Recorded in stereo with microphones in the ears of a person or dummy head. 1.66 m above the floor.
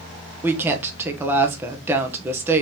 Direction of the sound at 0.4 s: 15° right (ahead or behind).